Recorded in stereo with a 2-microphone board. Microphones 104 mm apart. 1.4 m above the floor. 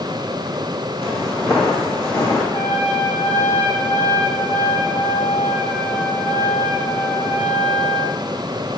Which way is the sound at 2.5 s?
30° left (ahead or behind).